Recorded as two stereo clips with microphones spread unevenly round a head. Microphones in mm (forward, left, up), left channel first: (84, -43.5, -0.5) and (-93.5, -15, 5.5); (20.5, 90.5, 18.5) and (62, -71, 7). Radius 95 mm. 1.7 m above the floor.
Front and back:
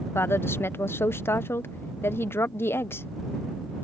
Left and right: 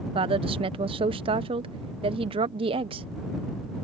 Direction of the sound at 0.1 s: 75° right.